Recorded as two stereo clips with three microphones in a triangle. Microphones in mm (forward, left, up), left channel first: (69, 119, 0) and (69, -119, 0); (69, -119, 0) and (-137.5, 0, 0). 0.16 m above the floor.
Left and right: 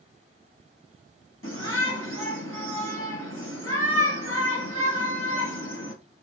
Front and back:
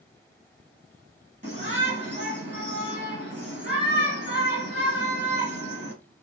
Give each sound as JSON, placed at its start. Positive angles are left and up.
{"t": 1.4, "sound": "a shout", "azimuth_deg": 115, "distance_m": 3.5}